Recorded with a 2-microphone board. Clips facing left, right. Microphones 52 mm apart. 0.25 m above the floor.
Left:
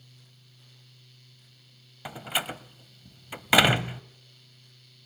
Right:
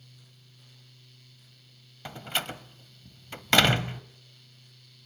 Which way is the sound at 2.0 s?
10° left (ahead or behind).